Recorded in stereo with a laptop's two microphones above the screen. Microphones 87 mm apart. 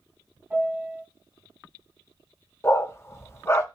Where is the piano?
20° right (ahead or behind), 1.8 m.